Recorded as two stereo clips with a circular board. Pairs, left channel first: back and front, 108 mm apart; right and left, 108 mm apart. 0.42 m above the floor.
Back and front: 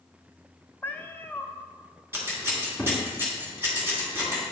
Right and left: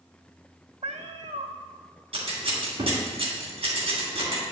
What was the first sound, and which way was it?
A cat meowing, 110° left.